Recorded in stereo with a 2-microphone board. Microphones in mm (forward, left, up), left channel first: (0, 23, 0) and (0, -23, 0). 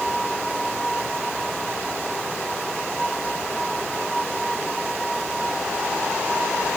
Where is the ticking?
I don't hear ticking.